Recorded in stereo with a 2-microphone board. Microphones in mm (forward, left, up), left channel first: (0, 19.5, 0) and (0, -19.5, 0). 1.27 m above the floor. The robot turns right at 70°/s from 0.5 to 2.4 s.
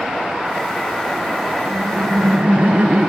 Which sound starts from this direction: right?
Laughter, at 1.6 s.